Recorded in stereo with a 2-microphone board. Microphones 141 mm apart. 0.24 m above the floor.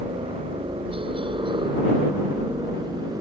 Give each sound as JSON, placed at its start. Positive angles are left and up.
{"t": 0.0, "sound": "a helicopter", "side_deg": -45}